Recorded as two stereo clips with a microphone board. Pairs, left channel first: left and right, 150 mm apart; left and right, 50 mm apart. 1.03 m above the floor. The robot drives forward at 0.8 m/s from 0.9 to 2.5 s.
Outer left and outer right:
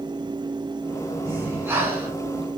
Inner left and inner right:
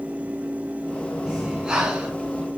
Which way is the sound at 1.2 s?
15° right (ahead or behind).